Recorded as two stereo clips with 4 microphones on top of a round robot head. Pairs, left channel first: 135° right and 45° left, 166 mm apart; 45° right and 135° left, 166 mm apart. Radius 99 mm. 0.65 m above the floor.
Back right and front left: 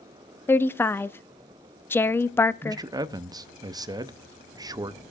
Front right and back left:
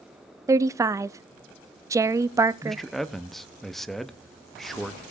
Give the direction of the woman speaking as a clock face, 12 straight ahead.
6 o'clock.